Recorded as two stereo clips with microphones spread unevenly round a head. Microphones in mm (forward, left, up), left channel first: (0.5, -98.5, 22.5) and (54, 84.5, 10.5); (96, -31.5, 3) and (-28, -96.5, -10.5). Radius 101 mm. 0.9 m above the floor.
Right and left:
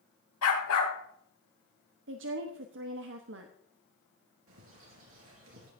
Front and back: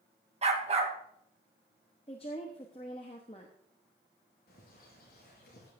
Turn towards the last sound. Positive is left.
turn(degrees=65)